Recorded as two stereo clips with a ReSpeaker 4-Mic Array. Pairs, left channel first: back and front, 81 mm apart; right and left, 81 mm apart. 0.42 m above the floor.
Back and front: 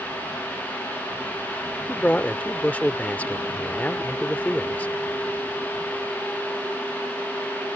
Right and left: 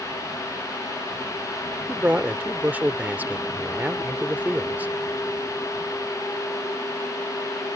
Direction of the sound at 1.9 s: 135° left.